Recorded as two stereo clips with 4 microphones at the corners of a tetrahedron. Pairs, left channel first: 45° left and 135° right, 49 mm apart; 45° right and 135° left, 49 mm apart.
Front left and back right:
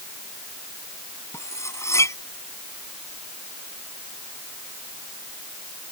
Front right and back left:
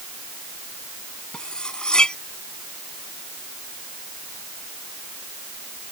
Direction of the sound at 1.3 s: 30° left.